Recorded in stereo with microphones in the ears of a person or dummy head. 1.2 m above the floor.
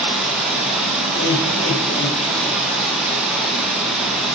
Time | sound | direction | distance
0.0 | running water | centre (ahead or behind) | 1.0 m
1.1 | laughter | 50° left (ahead or behind) | 2.5 m